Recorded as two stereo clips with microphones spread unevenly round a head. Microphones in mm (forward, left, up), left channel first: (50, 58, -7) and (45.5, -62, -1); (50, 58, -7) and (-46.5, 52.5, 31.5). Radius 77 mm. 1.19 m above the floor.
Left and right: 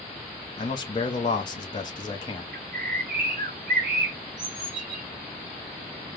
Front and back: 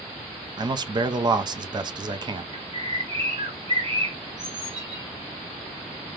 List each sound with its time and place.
0.6 s a man speaking: 130° left, 0.6 m
2.5 s a bird: 120° right, 0.8 m